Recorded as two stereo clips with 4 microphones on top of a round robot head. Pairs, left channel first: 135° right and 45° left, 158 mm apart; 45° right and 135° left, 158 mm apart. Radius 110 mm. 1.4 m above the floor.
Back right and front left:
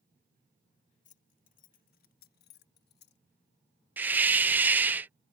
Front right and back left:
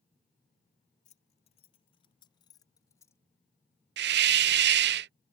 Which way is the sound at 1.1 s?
95° right.